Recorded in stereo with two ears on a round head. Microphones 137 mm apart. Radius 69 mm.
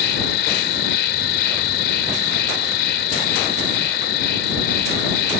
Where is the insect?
75° left (ahead or behind).